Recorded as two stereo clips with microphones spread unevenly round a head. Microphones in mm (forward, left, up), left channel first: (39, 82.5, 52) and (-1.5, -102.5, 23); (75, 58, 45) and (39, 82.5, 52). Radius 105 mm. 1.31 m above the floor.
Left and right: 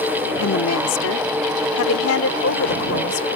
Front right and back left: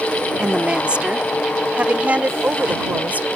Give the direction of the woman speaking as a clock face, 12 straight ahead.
9 o'clock.